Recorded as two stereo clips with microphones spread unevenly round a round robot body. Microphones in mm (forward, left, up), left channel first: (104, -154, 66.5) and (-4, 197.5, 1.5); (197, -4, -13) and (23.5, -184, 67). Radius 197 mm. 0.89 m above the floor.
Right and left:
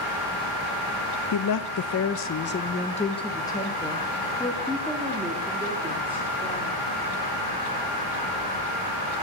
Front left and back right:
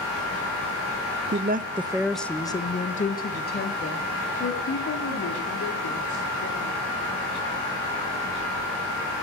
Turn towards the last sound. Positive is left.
turn(degrees=25)